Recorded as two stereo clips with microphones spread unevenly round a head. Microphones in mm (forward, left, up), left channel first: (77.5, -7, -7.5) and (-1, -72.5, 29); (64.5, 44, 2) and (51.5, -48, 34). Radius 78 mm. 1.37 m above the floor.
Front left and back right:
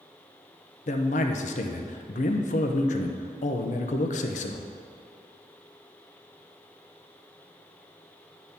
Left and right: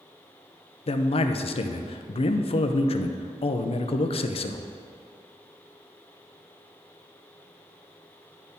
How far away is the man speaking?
About 0.5 m.